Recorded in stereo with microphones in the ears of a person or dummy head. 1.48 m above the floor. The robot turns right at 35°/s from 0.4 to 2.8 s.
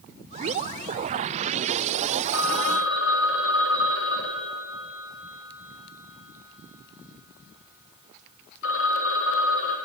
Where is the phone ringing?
75° left (ahead or behind), 4 m; by 9.8 s 80° left, 4 m.